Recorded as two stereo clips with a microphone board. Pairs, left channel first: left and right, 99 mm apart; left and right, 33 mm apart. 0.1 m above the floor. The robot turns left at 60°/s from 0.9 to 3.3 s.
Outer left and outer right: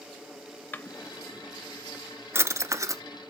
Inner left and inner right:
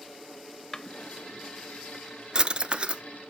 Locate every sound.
0.7 s a drawer: 20° left (ahead or behind), 0.6 m; by 3.0 s 35° right (ahead or behind), 0.6 m